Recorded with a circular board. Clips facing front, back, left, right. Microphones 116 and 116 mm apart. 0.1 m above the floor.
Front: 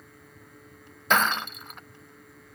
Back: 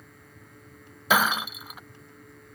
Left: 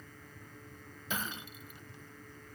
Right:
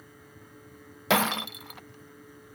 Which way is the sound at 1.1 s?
95° right.